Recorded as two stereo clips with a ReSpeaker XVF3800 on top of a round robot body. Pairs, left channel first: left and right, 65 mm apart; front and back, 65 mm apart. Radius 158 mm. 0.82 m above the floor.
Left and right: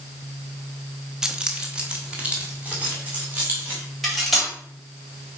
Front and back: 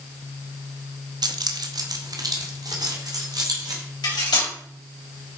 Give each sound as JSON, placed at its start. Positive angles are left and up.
{"t": 1.2, "sound": "keys jangling", "azimuth_deg": -175, "distance_m": 0.5}
{"t": 4.0, "sound": "cutlery clinking", "azimuth_deg": 0, "distance_m": 3.0}